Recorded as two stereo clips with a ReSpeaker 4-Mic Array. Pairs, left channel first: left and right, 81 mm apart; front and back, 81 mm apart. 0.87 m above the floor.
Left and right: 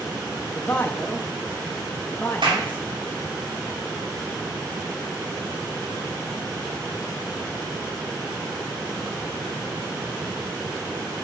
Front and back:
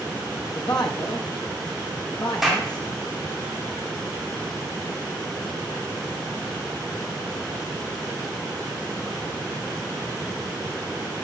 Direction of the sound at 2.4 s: 95° right.